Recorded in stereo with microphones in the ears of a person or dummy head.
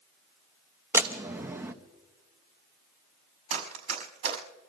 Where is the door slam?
15° right (ahead or behind), 1.0 m.